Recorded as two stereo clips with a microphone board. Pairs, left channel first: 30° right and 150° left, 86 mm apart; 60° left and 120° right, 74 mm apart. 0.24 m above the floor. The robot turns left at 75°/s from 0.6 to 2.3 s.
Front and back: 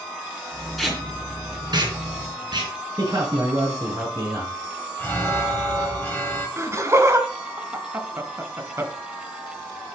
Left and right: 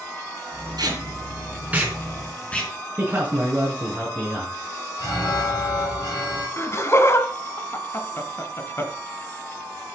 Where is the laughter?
100° left, 1.8 m.